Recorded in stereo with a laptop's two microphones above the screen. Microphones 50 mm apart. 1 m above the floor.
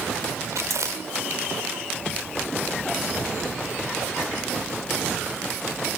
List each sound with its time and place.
0.5 s chewing: 80° right, 2 m